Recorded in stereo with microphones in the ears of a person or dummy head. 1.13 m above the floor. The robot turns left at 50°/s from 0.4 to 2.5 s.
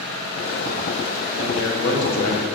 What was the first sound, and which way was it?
A man speaking, 95° left.